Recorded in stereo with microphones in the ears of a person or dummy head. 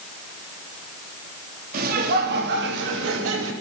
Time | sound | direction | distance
1.7 | laughter | 60° right (ahead or behind) | 3 m